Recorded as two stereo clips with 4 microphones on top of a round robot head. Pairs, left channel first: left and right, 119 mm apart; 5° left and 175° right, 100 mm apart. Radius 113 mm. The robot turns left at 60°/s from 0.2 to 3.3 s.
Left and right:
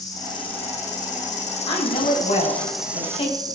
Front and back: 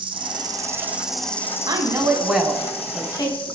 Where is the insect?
155° left, 1.8 m; by 3.6 s 30° right, 1.8 m.